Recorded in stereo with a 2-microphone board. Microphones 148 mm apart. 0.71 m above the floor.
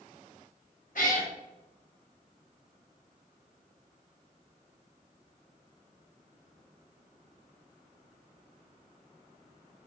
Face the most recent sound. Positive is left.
turn(degrees=65)  # may be behind; listen again after turning